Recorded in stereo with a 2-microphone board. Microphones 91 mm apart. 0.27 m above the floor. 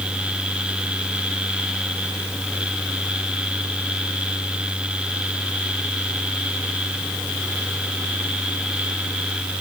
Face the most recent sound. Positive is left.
No sound to turn to.